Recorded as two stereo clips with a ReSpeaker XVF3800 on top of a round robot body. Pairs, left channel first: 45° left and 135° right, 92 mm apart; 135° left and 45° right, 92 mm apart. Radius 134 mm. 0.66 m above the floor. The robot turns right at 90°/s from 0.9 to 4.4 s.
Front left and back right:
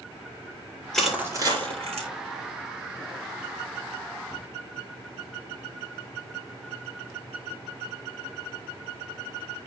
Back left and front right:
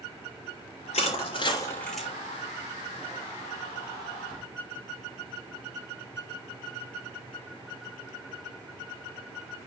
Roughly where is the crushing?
Behind left.